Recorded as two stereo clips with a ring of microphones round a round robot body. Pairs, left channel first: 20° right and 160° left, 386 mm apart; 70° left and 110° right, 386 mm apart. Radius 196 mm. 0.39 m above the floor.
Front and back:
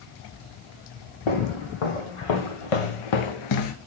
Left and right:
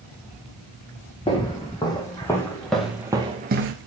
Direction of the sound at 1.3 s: 10° right.